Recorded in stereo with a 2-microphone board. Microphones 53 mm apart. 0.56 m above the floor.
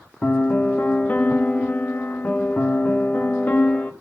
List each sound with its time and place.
0.2 s a piano: 30° left (ahead or behind), 1.4 m